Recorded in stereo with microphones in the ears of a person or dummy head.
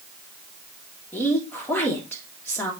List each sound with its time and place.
1.1 s a woman speaking: 15° left (ahead or behind), 3 m